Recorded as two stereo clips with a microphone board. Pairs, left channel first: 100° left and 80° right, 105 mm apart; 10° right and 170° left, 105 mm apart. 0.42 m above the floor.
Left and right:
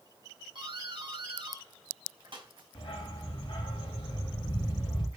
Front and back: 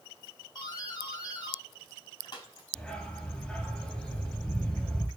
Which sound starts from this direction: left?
A dog barking, at 2.8 s.